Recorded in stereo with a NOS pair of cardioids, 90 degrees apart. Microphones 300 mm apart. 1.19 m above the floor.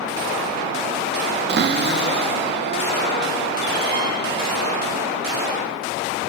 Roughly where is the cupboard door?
Ahead right.